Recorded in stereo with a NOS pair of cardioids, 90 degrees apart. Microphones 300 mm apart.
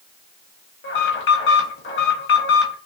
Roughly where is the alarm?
Ahead left.